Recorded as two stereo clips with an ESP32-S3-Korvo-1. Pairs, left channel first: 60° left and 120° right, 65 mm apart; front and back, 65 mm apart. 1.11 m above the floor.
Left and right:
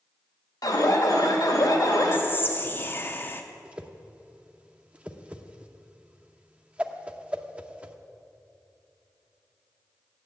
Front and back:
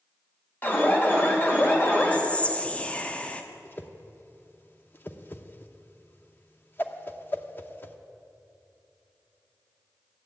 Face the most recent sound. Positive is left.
turn(degrees=-50)